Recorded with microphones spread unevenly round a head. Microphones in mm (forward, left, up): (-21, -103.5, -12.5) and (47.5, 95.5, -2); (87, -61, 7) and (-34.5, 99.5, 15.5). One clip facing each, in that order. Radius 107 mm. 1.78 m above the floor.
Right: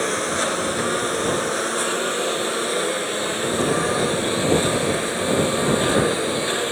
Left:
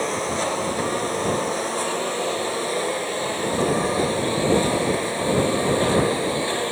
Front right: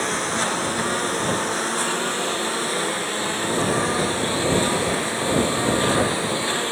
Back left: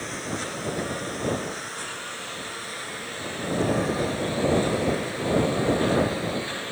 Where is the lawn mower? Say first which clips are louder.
Right 1 dB, front right 6 dB; 40° right; by 6.7 s 35° right.